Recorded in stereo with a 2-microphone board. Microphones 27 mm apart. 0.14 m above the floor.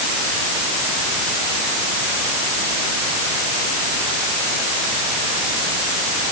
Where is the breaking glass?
No breaking glass in this recording.